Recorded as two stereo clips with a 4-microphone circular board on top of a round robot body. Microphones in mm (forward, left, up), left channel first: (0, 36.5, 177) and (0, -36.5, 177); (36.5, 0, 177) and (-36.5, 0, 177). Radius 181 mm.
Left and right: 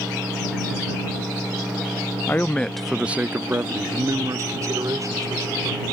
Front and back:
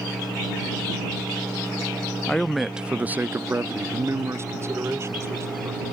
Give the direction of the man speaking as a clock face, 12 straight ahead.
10 o'clock.